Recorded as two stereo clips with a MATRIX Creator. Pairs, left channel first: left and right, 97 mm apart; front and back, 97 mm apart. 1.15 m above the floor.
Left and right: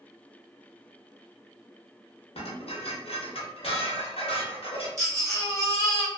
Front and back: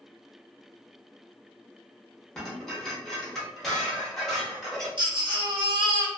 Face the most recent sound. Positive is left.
turn(degrees=-145)